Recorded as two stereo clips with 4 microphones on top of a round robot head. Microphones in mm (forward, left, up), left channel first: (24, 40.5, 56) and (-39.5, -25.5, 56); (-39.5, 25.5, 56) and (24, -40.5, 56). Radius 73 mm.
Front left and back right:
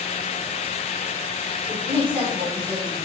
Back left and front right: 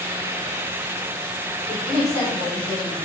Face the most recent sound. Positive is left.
turn(degrees=120)